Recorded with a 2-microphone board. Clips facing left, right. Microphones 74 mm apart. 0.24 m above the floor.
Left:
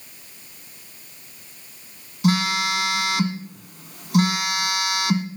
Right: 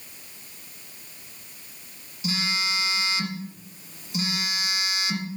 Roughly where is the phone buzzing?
Left.